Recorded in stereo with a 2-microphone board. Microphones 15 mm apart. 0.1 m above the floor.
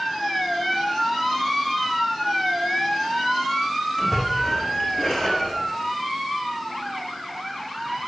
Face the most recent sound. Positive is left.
turn(degrees=35)  # may be behind; listen again after turning